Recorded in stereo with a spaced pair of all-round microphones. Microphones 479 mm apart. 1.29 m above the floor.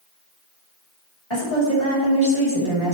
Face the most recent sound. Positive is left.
turn(degrees=75)  # may be behind; listen again after turning